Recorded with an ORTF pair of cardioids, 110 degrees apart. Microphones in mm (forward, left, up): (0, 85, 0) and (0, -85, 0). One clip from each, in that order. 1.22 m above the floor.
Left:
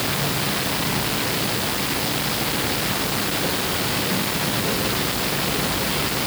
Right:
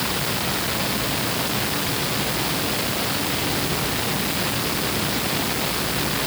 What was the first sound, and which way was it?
Only background noise.